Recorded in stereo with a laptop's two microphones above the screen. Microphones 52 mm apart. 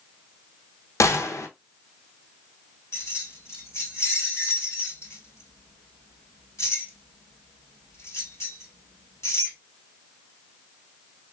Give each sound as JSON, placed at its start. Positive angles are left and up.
{"t": 1.0, "sound": "a gunshot", "side_deg": 75, "distance_m": 0.8}
{"t": 2.9, "sound": "keys jangling", "side_deg": 60, "distance_m": 2.0}